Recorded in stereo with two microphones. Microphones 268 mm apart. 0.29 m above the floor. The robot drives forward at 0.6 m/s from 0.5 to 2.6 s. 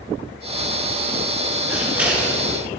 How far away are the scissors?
About 3.5 m.